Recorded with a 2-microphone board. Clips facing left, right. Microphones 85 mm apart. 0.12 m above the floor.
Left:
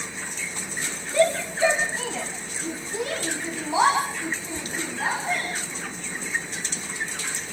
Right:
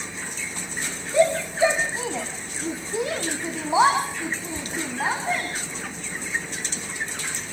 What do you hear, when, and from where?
1.1 s a shout: 15° right (ahead or behind), 2.5 m; by 5.5 s 25° right (ahead or behind), 6.5 m